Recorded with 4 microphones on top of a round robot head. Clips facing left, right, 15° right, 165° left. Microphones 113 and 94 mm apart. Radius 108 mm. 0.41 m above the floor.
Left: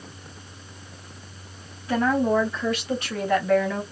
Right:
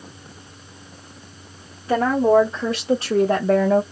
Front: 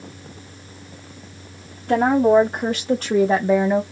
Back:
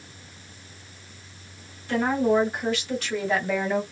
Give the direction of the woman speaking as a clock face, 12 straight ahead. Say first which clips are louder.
Right 5 dB, front 7 dB; 1 o'clock.